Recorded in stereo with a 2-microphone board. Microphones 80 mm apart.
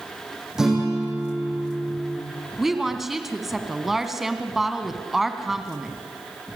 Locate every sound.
0.6 s a guitar: 5° right (ahead or behind), 9 m
2.6 s a woman speaking: 5° right (ahead or behind), 1.8 m